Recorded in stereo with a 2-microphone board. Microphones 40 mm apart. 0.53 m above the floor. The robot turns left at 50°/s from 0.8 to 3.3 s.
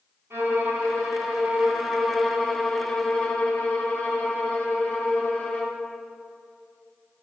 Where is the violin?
105° right, 2 m; by 5.8 s 130° left, 2 m.